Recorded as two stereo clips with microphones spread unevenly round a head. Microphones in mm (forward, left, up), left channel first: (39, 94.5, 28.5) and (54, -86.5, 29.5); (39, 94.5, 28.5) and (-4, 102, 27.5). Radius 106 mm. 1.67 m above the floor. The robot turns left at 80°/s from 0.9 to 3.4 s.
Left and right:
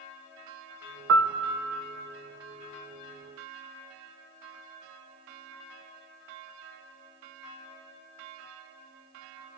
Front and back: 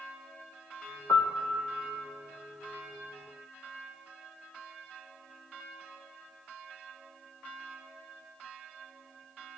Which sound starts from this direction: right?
A piano, at 1.1 s.